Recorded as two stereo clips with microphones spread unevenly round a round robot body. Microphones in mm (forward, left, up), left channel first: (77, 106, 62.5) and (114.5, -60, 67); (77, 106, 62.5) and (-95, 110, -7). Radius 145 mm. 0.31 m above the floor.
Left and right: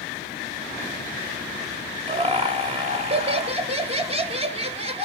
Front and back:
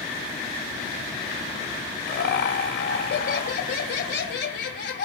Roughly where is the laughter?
Ahead right.